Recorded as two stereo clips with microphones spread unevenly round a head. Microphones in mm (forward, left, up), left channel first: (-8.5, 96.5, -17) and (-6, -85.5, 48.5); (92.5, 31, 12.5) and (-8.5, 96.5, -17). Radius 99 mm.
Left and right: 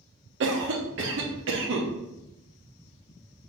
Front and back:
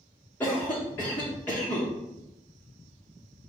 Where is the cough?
110° right, 1.0 m.